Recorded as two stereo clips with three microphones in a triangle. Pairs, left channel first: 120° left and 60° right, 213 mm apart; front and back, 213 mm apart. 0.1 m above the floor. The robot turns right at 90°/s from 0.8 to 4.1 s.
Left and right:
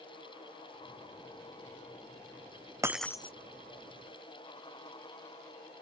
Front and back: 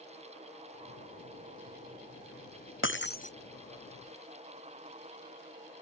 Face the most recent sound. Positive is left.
turn(degrees=130)